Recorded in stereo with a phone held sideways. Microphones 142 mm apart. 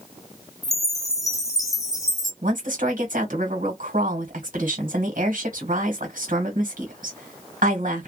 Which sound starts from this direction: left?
A chime, at 0.6 s.